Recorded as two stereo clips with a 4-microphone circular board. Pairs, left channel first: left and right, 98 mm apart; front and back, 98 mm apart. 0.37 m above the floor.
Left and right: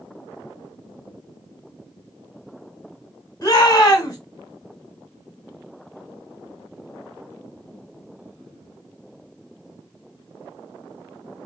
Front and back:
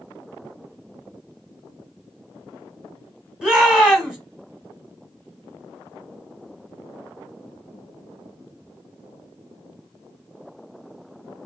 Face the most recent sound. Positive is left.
turn(degrees=100)